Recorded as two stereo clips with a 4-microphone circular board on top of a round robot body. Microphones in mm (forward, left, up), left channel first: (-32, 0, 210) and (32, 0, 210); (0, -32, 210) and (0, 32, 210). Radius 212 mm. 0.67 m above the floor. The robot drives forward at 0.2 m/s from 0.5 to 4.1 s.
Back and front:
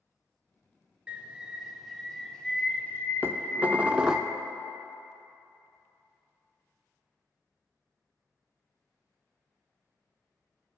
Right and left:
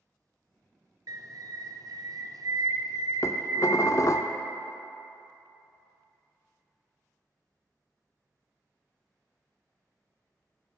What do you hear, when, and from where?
1.1 s a bird: 70° left, 0.6 m; by 4.2 s 130° left, 0.8 m
3.2 s dishes clattering: 55° right, 0.6 m; by 4.3 s 75° right, 0.5 m